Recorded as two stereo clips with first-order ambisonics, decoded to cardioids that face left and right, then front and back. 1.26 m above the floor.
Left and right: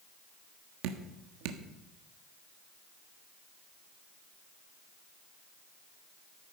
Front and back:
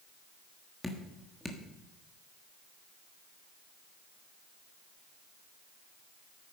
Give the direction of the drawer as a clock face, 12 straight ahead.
No drawer in this recording.